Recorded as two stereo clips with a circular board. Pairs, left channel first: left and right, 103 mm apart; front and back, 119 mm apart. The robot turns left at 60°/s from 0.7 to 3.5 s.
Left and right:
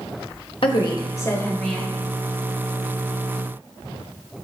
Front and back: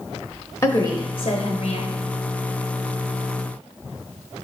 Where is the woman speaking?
65° left, 0.7 m; by 1.9 s 5° right, 0.7 m.